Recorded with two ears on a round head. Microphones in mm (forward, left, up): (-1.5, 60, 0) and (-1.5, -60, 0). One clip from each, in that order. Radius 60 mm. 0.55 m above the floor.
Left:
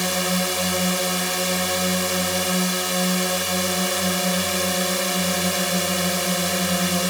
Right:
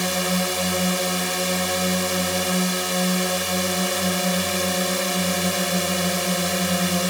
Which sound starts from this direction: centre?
A drone, at 0.0 s.